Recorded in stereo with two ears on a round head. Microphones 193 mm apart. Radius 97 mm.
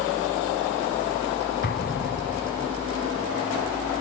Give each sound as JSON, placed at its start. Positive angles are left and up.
{"t": 1.6, "sound": "an explosion", "side_deg": 50, "distance_m": 0.9}